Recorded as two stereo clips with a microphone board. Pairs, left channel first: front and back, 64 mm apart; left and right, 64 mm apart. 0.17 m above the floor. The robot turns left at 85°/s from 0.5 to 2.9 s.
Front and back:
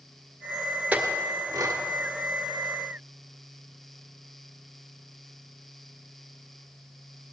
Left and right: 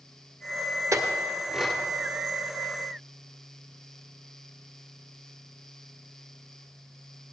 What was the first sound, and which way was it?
A clink, 110° right.